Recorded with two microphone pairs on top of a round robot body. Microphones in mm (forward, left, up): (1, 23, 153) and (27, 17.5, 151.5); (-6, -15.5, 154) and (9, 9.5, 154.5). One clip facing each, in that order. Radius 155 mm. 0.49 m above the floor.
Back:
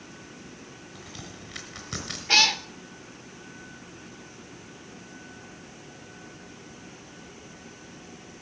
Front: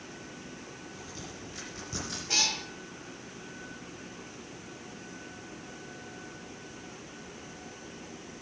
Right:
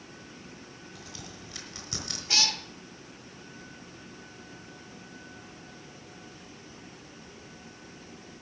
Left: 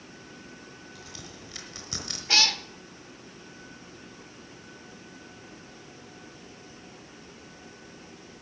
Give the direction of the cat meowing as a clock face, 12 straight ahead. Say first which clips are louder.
Back 9 dB, left 3 dB; 8 o'clock.